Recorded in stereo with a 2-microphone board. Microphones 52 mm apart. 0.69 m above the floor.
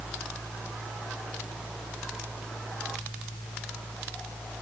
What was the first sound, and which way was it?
Only background noise.